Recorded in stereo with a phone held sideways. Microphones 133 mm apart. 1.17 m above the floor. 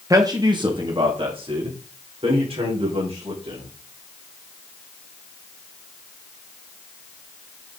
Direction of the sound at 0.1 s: 25° right (ahead or behind).